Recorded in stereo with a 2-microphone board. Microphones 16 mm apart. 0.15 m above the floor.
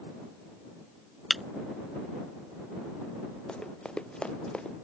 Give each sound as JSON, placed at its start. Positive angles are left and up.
{"t": 1.3, "sound": "breaking glass", "side_deg": 0}
{"t": 3.5, "sound": "running footsteps", "side_deg": 80}